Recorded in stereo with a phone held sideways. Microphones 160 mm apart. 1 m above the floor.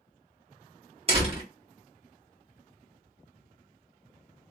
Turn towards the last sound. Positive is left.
turn(degrees=-40)  # may be behind; listen again after turning